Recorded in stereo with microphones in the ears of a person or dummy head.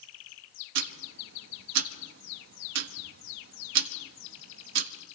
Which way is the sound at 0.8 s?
65° right (ahead or behind).